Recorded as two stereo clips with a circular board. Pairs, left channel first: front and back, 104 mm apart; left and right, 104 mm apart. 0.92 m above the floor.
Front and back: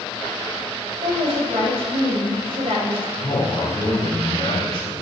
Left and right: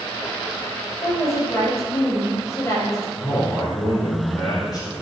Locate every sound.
1.0 s a woman speaking: 150° left, 4.5 m
3.2 s a man speaking: 45° left, 3 m